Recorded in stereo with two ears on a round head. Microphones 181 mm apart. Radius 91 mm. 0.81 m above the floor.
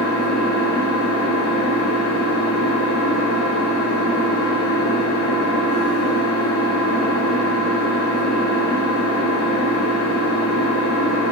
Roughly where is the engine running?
Left.